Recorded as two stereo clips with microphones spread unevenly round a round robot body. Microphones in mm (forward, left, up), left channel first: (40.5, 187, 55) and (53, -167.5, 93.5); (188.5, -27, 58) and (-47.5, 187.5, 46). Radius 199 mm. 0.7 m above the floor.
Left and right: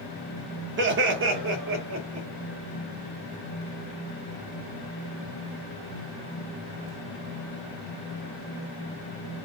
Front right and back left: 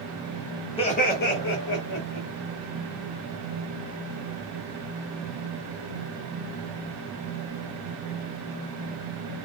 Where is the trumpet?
No trumpet in this recording.